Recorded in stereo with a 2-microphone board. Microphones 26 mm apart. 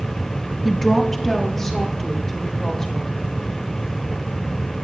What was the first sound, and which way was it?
A woman speaking, 5° left (ahead or behind).